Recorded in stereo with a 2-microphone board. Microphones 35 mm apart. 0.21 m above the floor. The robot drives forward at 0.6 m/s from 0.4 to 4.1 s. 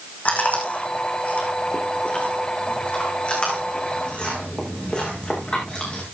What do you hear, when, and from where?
0.2 s chewing: 45° left (ahead or behind), 5 m; by 6.0 s 30° left (ahead or behind), 6.5 m